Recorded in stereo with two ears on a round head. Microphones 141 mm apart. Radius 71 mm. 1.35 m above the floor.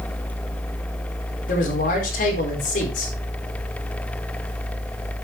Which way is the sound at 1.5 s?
60° left (ahead or behind).